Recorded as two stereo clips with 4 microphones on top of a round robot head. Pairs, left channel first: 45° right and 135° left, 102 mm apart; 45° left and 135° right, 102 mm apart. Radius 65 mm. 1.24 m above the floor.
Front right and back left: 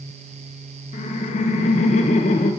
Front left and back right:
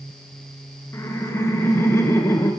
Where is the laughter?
25° right, 0.9 m.